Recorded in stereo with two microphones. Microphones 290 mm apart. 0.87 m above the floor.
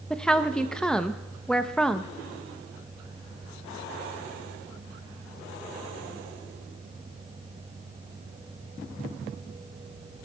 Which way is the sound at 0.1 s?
5° left (ahead or behind).